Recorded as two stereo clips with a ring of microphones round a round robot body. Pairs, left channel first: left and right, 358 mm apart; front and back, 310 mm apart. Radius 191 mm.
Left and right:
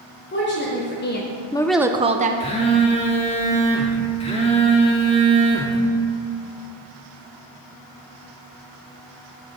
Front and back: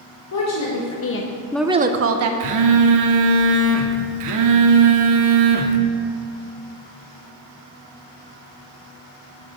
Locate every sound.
0.3 s a woman speaking: 30° left, 1.6 m; by 2.3 s 155° right, 1.0 m
2.4 s a phone buzzing: 165° left, 0.8 m